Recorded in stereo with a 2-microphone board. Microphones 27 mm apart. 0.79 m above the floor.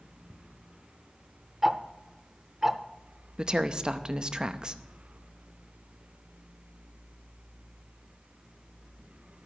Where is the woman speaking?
35° right (ahead or behind), 0.6 m.